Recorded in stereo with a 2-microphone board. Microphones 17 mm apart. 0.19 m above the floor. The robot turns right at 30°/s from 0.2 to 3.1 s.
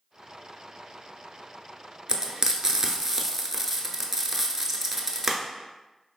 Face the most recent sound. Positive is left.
turn(degrees=-20)  # may be behind; listen again after turning